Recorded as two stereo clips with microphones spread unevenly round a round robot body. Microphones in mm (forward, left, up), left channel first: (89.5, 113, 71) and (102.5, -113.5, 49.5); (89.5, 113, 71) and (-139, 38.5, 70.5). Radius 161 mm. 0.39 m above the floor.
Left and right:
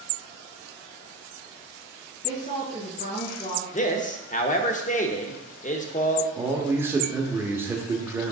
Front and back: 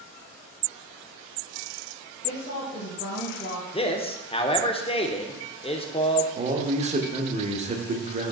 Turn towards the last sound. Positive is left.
turn(degrees=-145)